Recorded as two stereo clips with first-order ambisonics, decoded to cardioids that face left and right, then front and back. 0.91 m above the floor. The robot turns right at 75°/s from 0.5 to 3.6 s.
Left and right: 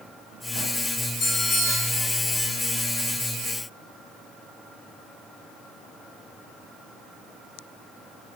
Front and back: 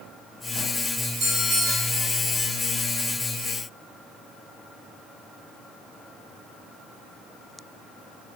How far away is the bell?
About 0.8 m.